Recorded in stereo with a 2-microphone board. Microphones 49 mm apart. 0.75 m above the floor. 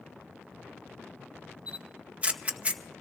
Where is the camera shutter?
25° right (ahead or behind), 0.7 m.